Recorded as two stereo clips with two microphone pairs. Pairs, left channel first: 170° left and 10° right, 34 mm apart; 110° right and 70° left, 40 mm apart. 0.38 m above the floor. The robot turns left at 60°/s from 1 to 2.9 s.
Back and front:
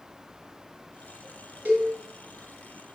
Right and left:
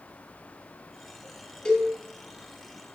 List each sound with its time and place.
1.6 s a cowbell: 35° right, 1.3 m; by 1.9 s 50° right, 1.3 m